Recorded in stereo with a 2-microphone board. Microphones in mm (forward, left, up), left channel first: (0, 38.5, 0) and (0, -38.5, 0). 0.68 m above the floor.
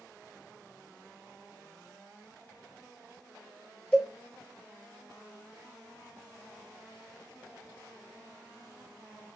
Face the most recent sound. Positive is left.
turn(degrees=15)  # may be behind; listen again after turning